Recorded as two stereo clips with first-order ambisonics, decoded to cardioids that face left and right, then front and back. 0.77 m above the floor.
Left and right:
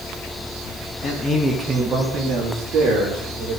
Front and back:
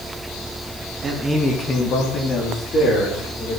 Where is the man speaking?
115° left, 1.1 m; by 3.6 s 50° right, 3.5 m.